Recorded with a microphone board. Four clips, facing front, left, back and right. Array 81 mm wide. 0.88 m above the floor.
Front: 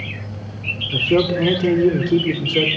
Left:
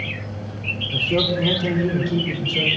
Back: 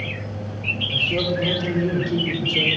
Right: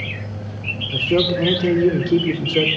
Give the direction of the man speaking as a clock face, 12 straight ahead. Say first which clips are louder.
Right 3 dB, front 7 dB; 1 o'clock.